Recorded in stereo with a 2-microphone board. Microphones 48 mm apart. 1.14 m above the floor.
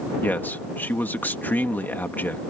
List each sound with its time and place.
0.2 s a man speaking: 40° left (ahead or behind)